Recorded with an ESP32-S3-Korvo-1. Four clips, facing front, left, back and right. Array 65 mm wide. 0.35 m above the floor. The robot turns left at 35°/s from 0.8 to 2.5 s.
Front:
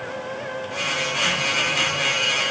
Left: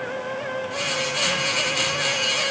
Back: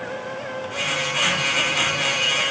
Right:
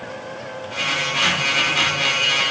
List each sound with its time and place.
Only background noise.